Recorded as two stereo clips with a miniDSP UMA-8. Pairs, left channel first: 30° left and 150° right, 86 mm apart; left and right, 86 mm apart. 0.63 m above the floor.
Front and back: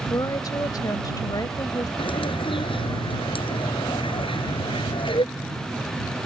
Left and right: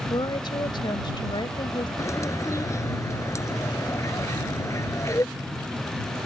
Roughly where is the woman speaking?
Left.